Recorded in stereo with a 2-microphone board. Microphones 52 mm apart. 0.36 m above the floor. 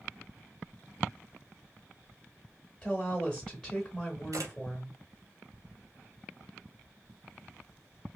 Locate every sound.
2.8 s a woman speaking: 10° left (ahead or behind), 0.9 m
4.3 s a camera shutter: 90° right, 1.2 m